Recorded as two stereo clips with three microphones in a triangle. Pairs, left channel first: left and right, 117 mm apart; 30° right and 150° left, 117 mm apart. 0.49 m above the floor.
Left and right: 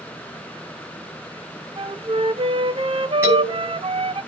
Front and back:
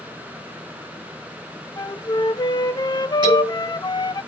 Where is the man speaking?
160° right, 7 m.